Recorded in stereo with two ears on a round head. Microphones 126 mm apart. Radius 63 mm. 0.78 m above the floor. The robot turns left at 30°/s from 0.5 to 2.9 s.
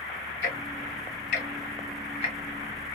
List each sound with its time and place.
0.4 s ticking: 70° left (ahead or behind), 1.2 m; by 2.4 s 40° left (ahead or behind), 1.2 m